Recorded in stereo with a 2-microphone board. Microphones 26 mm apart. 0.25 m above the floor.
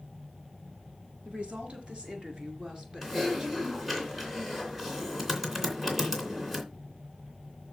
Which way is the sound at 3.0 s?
10° right (ahead or behind).